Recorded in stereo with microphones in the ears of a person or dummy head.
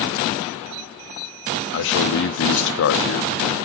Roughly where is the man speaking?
Left.